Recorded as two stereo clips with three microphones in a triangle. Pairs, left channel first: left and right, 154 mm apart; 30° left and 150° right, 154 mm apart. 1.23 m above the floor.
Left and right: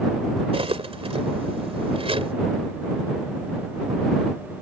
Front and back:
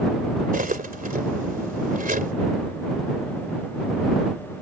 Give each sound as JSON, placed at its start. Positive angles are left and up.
{"t": 0.5, "sound": "cutlery clinking", "azimuth_deg": -140}